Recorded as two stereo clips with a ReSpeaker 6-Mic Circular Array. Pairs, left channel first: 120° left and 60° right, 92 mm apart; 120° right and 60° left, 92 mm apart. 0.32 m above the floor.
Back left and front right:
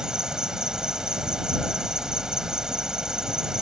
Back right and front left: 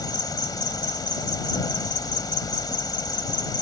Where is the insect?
140° right.